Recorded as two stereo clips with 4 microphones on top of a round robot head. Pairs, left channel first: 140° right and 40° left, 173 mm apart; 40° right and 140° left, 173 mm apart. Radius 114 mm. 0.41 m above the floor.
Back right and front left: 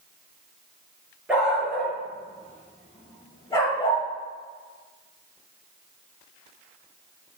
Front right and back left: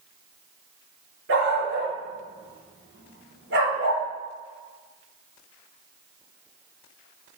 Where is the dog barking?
125° left, 3 m; by 4.0 s 155° left, 4 m.